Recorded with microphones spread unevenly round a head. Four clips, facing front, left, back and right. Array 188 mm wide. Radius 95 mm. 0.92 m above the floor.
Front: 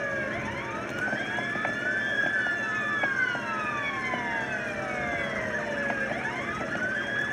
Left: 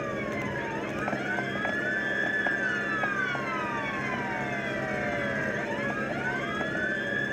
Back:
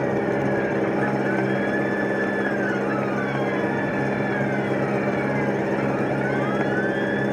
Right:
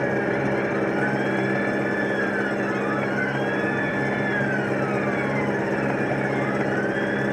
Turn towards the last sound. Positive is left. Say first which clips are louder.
# right 9 dB, back 10 dB
turn(degrees=-145)